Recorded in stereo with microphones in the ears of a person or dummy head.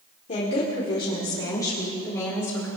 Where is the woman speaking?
35° left (ahead or behind), 1.7 m; by 2.7 s 10° left (ahead or behind), 3 m.